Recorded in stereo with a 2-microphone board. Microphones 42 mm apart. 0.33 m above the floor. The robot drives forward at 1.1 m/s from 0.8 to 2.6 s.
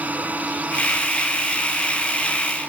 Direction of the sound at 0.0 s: 45° right (ahead or behind).